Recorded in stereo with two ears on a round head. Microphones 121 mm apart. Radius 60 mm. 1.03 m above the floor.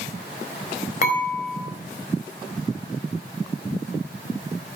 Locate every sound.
1.0 s dishes clattering: 65° left (ahead or behind), 4 m